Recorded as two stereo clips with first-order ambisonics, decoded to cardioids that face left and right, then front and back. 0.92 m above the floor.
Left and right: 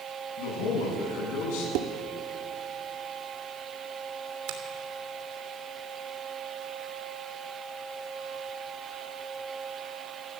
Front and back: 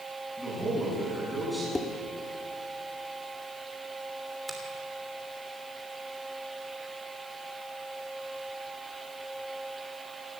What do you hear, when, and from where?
0.4 s a man speaking: 95° left, 7.5 m
1.8 s dishes clattering: 80° right, 1.2 m
4.5 s a finger snap: 95° right, 3 m